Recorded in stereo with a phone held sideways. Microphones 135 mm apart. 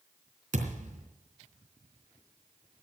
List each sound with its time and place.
0.5 s a thud: 75° right (ahead or behind), 3.5 m